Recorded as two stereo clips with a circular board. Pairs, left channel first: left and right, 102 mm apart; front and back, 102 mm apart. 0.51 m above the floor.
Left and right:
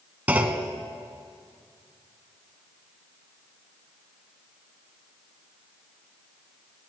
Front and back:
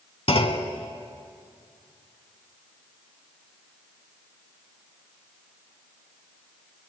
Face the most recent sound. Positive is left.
turn(degrees=-15)